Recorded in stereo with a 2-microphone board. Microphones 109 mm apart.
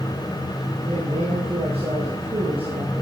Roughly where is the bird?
No bird in this recording.